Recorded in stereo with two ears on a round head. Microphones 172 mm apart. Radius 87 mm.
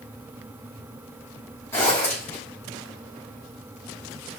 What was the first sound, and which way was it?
A zipper, 15° left (ahead or behind).